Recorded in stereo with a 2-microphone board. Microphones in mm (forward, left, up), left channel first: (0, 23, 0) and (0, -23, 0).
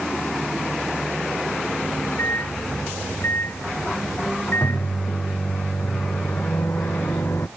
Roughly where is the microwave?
Left.